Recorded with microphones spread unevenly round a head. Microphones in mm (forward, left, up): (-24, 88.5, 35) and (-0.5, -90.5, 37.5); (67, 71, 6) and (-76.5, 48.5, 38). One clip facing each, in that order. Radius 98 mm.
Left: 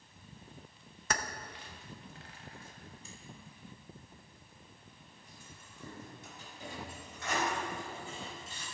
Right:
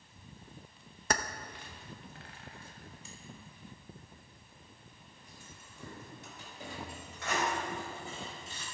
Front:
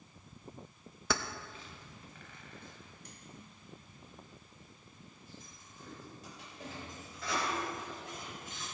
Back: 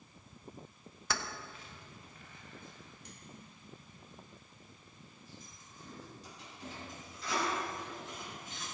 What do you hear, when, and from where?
1.1 s keys jangling: 25° right, 0.5 m; by 8.6 s 50° right, 4 m